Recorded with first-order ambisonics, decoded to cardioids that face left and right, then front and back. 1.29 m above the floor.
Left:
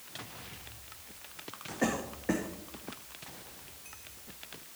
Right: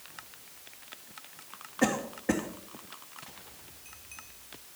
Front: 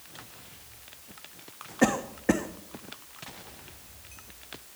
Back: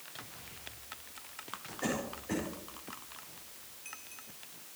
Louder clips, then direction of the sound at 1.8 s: Right 4 dB, front 12 dB; 10° right.